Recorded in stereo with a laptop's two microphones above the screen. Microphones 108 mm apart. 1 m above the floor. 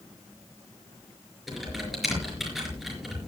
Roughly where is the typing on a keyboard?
Centre.